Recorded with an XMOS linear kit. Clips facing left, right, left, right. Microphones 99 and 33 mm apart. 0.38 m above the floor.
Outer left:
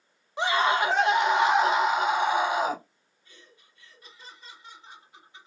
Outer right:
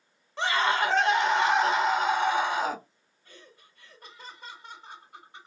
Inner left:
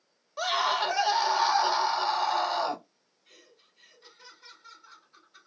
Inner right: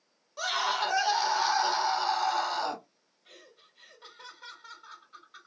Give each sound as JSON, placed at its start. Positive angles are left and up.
{"t": 0.4, "sound": "a scream", "side_deg": 15, "distance_m": 1.1}
{"t": 3.2, "sound": "laughter", "side_deg": -50, "distance_m": 2.0}